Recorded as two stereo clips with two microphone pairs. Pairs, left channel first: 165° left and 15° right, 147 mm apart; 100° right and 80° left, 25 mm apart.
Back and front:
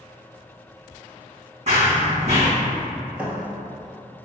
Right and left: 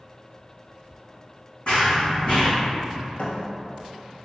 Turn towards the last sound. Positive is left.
turn(degrees=-95)